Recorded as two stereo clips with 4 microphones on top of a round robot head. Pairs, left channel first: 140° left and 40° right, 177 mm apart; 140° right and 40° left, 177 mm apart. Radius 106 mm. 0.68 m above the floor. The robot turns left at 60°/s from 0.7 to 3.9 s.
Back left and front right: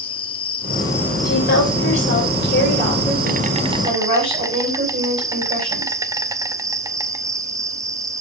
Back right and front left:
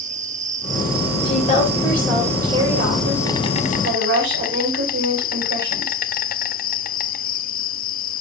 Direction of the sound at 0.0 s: 85° left.